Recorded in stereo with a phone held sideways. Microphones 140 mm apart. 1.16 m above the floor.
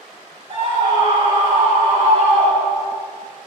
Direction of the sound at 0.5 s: 50° right (ahead or behind).